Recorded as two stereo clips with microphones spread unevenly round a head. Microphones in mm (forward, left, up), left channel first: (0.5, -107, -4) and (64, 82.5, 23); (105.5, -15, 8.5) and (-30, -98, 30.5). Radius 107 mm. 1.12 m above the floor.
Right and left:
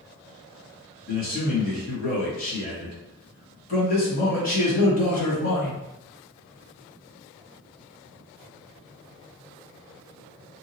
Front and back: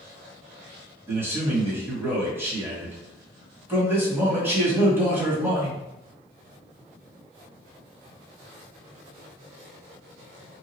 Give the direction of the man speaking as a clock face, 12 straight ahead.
2 o'clock.